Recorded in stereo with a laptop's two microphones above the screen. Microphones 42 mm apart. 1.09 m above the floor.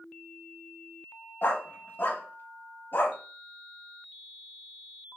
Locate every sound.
1.4 s a dog barking: 50° left (ahead or behind), 0.7 m